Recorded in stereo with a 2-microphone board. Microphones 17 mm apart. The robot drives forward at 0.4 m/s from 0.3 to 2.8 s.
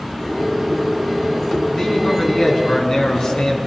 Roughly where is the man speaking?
Left.